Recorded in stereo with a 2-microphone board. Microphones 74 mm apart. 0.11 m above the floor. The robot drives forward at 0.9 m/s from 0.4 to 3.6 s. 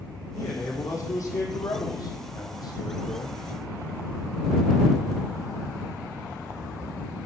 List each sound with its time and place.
0.3 s a man speaking: 40° left (ahead or behind), 4 m; by 3.4 s 65° left (ahead or behind), 3 m